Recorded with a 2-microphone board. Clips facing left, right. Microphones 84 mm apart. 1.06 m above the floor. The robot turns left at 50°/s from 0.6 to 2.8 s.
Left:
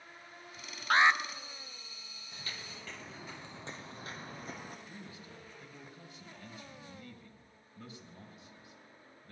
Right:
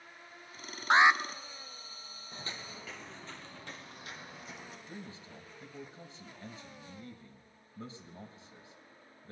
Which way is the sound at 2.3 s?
40° right (ahead or behind).